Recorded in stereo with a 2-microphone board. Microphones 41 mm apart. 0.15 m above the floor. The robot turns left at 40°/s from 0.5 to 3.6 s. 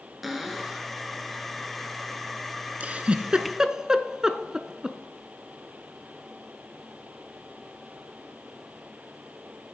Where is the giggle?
40° right (ahead or behind), 0.6 m; by 5.0 s 20° right (ahead or behind), 0.6 m.